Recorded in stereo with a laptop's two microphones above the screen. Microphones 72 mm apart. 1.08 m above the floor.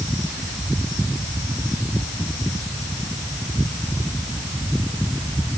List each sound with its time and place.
Only background noise.